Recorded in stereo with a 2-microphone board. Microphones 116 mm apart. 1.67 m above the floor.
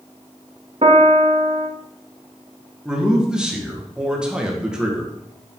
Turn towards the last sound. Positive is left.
turn(degrees=-5)  # may be behind; listen again after turning